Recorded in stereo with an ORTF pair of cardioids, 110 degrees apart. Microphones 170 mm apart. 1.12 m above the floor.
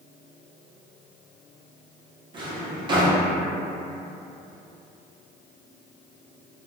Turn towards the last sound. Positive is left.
turn(degrees=-30)